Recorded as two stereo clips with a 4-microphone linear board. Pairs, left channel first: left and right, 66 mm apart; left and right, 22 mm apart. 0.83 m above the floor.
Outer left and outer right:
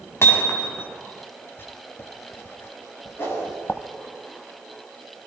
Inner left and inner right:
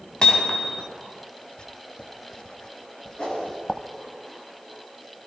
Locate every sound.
0.2 s hammering: 40° left (ahead or behind), 3 m
1.6 s writing: 35° left (ahead or behind), 1.4 m
3.2 s a whoosh: 35° left (ahead or behind), 8 m